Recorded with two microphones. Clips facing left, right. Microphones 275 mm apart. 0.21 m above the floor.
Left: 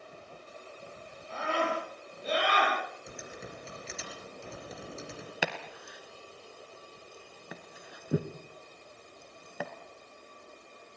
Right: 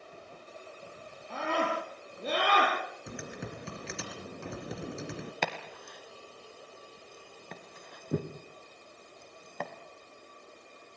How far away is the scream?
About 7 m.